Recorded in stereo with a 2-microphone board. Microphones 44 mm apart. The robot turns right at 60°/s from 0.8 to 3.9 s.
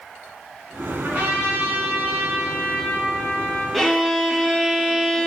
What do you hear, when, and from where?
1.0 s a trumpet: 155° right, 3.5 m; by 3.6 s straight ahead, 3.5 m
3.7 s a violin: centre (ahead or behind), 1.0 m; by 5.3 s 5° left (ahead or behind), 1.0 m